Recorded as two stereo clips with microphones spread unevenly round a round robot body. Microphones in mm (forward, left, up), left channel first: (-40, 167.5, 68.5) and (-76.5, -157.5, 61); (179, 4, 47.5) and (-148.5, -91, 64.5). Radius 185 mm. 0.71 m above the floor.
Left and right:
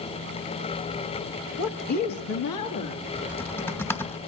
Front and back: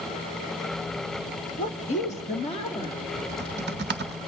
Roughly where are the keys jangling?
I don't hear keys jangling.